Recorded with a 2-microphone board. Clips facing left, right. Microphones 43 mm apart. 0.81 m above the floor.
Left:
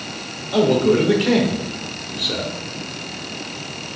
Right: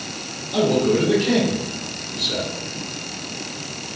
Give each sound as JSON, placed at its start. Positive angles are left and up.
{"t": 0.5, "sound": "a man speaking", "side_deg": 55, "distance_m": 2.5}